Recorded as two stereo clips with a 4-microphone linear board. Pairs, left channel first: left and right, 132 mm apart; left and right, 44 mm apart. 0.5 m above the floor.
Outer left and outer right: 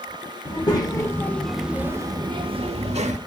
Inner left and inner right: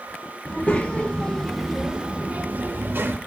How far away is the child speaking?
About 1.0 m.